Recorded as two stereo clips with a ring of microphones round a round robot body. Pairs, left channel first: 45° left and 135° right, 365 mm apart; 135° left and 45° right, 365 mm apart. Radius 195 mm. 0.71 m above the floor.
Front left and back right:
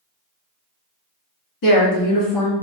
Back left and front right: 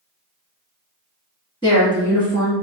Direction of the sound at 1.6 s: 60° left.